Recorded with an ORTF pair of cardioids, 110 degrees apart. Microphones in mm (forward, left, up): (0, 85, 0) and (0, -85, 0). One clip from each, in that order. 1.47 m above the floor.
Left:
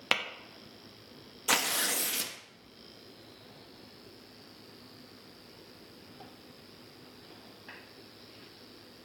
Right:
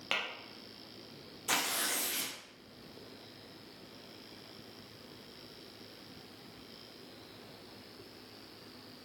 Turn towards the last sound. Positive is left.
turn(degrees=30)